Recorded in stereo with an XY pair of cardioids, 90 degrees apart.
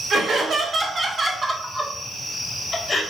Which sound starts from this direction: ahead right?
Laughter, at 0.1 s.